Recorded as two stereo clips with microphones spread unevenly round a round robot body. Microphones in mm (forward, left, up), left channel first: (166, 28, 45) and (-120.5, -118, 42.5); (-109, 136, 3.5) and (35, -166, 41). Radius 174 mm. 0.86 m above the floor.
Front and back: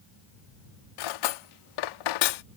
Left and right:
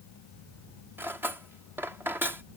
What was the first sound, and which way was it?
Cutlery clinking, 20° left.